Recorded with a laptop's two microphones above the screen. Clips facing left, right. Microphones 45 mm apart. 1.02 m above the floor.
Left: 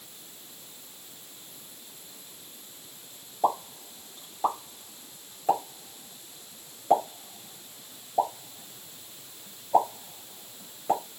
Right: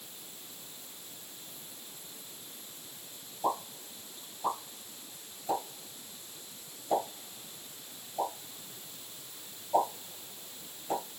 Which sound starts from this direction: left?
A pop, at 3.4 s.